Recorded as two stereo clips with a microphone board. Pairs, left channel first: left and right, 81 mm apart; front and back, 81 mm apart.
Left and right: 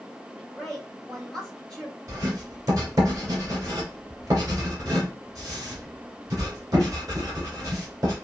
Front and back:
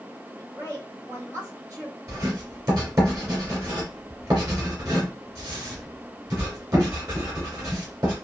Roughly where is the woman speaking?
Behind.